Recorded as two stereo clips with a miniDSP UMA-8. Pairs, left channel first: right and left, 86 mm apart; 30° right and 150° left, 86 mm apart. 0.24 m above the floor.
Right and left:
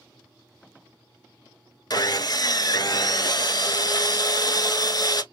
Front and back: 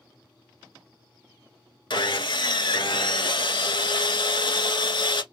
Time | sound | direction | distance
1.9 | sawing | 55° right | 0.6 m